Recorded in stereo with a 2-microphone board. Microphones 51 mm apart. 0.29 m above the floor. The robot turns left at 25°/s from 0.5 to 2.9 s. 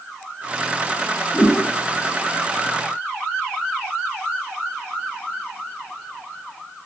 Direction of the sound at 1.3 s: 10° left (ahead or behind).